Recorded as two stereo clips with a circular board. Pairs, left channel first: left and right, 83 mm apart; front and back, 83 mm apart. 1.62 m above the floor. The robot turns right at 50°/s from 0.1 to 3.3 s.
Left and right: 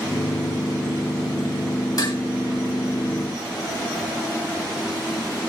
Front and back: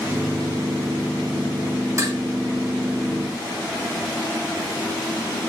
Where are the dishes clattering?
125° left, 3.5 m; by 2.2 s 135° left, 3.5 m.